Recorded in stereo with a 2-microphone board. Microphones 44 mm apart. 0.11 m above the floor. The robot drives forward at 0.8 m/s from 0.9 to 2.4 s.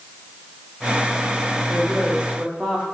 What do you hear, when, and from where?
1.7 s a woman speaking: 20° right (ahead or behind), 5.5 m